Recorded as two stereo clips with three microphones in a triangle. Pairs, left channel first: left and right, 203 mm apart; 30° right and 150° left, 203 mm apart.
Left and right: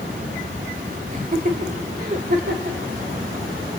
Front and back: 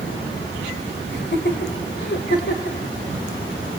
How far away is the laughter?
About 2.5 m.